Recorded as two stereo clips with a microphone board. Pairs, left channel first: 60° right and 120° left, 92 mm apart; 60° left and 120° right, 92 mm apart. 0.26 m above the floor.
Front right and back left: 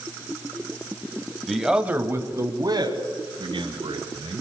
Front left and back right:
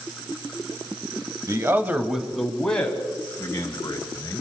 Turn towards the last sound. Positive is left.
turn(degrees=115)